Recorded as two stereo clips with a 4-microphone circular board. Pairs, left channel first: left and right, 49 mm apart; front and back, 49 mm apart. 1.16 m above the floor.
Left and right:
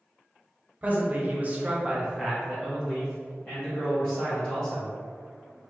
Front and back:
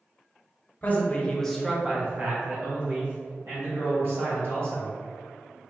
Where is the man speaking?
40° right, 0.9 m; by 4.9 s 165° left, 2.5 m.